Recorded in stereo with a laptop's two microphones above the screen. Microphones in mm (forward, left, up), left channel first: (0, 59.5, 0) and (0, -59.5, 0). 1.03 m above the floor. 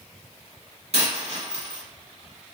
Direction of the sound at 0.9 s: 55° right (ahead or behind).